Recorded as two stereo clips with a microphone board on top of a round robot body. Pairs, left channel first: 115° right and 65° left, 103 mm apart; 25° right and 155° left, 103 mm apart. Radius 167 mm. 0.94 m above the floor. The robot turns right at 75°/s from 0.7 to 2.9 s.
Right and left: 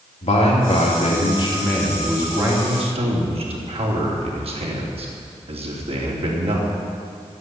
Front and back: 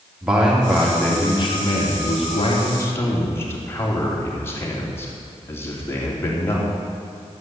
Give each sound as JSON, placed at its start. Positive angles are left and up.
{"t": 0.2, "sound": "a man speaking", "azimuth_deg": -120, "distance_m": 3.0}